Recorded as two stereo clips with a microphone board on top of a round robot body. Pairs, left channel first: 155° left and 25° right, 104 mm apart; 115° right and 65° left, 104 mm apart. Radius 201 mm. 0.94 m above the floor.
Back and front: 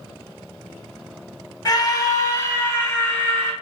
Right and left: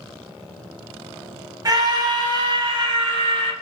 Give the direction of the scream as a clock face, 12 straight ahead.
8 o'clock.